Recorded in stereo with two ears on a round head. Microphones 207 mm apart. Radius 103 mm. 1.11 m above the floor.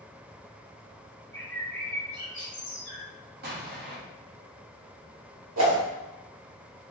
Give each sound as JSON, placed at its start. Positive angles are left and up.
{"t": 1.3, "sound": "a bird", "side_deg": 5, "distance_m": 1.2}
{"t": 3.4, "sound": "an explosion", "side_deg": -45, "distance_m": 0.8}
{"t": 5.6, "sound": "a whoosh", "side_deg": -75, "distance_m": 1.6}